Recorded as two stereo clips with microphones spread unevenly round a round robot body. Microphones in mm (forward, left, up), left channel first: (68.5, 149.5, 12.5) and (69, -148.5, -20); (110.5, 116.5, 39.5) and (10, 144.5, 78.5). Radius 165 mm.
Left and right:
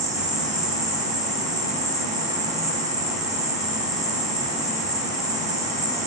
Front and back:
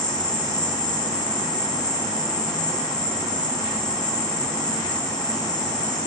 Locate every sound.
0.0 s an insect: 20° right, 1.2 m